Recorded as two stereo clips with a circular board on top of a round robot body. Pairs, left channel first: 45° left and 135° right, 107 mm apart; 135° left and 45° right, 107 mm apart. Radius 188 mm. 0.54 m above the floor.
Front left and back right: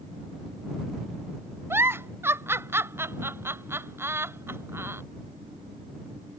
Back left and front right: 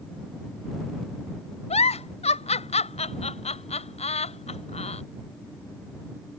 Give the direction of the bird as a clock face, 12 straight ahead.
I don't hear a bird.